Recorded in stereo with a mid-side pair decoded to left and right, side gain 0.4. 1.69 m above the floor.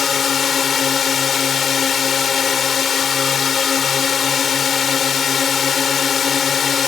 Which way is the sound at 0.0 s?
55° left.